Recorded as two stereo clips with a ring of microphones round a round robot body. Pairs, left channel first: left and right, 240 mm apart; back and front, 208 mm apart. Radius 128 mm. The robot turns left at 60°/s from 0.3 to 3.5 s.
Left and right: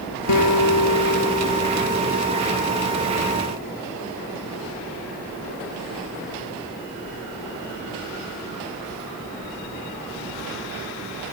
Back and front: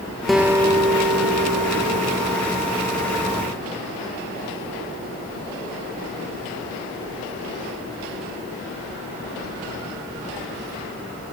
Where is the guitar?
90° left; by 2.4 s 35° right.